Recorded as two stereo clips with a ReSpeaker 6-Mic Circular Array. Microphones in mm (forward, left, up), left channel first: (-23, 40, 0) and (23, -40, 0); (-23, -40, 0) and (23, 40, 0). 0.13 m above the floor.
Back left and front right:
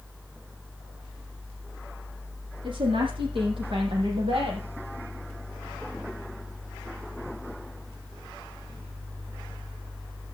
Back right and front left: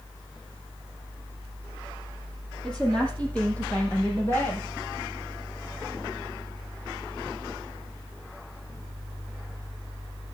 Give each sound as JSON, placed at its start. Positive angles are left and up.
{"t": 2.6, "sound": "a woman speaking", "azimuth_deg": -40, "distance_m": 6.5}